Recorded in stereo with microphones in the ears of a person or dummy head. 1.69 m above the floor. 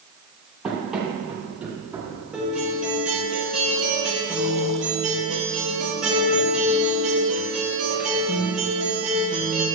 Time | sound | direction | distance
0.6 | running footsteps | 5° right (ahead or behind) | 3.5 m
2.3 | a guitar | 5° right (ahead or behind) | 2 m